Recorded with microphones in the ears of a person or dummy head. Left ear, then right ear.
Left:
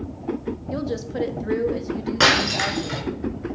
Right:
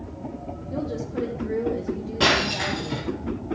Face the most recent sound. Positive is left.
turn(degrees=55)  # may be behind; listen again after turning